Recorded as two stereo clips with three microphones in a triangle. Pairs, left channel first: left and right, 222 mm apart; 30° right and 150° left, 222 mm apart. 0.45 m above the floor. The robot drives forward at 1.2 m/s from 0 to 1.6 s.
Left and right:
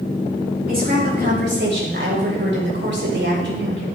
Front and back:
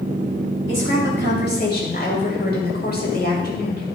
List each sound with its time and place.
0.7 s a woman speaking: 45° right, 3 m; by 3.9 s 65° right, 2.5 m